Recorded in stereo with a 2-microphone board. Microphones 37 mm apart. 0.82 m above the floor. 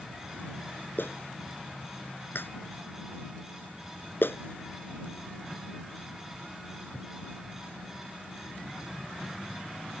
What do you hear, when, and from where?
1.0 s a clap: 75° left (ahead or behind)